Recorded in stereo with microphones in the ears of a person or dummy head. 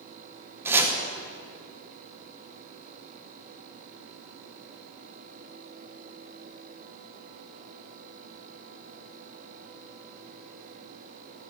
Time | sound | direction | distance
0.7 | chopping | 10° right (ahead or behind) | 1.8 m